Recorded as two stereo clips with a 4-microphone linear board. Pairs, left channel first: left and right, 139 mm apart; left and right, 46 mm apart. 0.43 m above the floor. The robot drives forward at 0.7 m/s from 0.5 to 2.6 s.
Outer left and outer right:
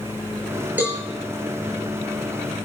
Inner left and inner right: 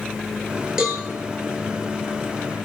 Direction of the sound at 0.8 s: 15° right (ahead or behind).